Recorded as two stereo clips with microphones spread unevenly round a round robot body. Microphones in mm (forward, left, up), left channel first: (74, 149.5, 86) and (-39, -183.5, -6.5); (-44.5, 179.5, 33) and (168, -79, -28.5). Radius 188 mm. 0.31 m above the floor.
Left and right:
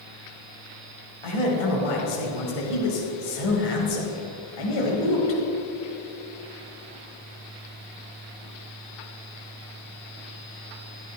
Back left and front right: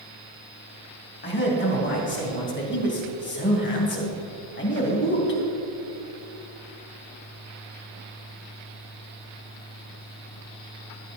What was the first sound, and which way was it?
A man speaking, 70° left.